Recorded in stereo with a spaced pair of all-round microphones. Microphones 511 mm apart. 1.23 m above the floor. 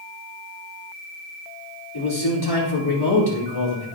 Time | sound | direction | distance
1.9 | a man speaking | 50° left (ahead or behind) | 4 m